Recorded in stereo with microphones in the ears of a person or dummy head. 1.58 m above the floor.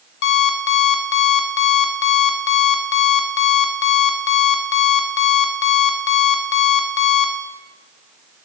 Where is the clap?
I don't hear a clap.